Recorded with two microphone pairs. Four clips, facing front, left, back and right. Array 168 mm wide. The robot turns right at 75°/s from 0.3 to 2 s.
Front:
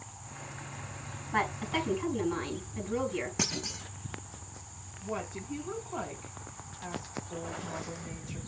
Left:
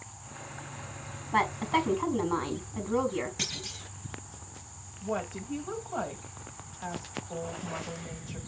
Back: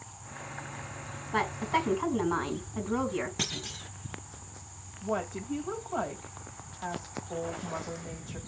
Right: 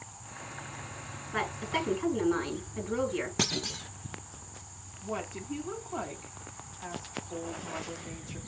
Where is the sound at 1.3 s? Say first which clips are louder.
Left 6 dB, back 2 dB; 85° left, 4 m; by 3.3 s 135° left, 4 m.